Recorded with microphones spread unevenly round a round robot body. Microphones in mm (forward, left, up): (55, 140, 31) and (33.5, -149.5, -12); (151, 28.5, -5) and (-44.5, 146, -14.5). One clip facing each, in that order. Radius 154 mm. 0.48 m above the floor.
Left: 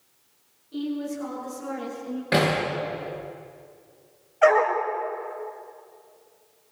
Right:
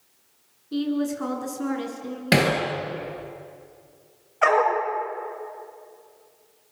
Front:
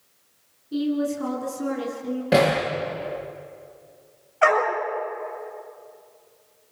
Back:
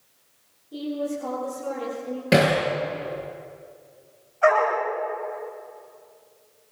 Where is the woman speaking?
80° right, 7 m.